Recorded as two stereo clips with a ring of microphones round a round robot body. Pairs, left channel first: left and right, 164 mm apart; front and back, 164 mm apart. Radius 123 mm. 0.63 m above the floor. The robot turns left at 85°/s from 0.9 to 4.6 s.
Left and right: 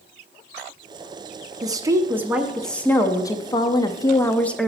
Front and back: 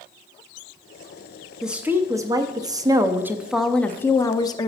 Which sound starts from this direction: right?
A woman speaking, at 1.6 s.